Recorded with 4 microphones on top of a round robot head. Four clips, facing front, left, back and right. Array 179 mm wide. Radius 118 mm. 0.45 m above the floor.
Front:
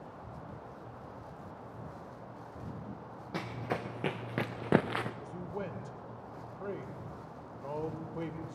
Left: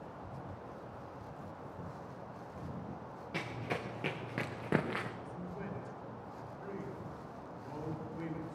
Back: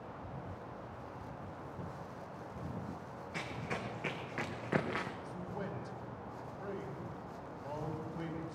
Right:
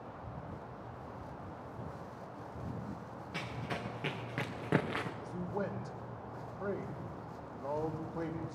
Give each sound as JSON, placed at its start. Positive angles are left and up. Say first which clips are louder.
{"t": 3.3, "sound": "running footsteps", "louder": "left 2 dB, front 5 dB", "azimuth_deg": 25, "distance_m": 3.0}
{"t": 5.2, "sound": "a man speaking", "louder": "right 6 dB, front 2 dB", "azimuth_deg": -55, "distance_m": 2.5}